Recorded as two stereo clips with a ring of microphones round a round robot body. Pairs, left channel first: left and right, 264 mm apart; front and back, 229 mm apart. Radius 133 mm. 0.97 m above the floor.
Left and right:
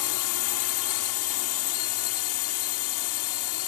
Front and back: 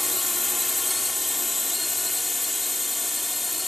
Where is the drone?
90° left.